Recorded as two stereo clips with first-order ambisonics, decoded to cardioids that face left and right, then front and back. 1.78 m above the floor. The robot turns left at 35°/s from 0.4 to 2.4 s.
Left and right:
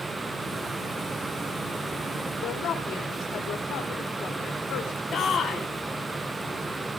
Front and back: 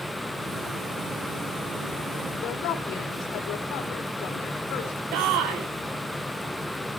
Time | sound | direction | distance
2.3 | a woman speaking | 45° left | 4.5 m
5.1 | a shout | 155° left | 4.5 m